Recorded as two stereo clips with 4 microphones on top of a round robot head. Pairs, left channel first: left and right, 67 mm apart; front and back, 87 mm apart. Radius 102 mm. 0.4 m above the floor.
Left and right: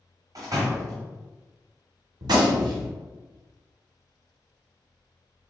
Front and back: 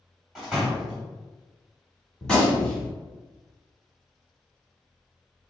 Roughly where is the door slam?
Right.